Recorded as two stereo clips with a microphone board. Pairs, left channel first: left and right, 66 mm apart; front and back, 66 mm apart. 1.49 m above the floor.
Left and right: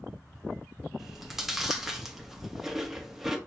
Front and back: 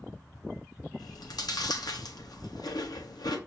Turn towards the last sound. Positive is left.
turn(degrees=-5)